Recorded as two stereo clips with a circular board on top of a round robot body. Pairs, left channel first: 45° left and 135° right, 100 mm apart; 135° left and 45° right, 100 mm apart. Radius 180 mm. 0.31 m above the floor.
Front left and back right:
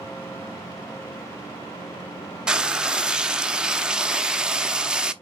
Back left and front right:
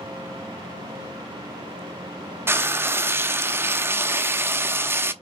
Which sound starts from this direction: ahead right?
Frying, at 2.5 s.